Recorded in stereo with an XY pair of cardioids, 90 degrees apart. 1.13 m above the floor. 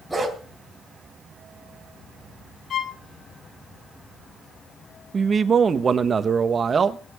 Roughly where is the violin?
Ahead left.